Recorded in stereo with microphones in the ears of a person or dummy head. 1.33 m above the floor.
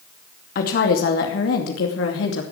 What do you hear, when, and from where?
0.6 s a woman speaking: 55° left (ahead or behind), 2.5 m; by 2.4 s 80° left, 2.5 m